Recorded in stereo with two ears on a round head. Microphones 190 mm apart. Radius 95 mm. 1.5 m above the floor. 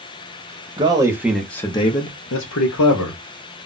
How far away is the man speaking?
About 0.9 m.